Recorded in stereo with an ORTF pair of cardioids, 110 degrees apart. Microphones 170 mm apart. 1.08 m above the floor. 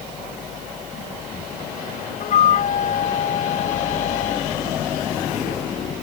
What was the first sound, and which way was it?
A flute, 50° left.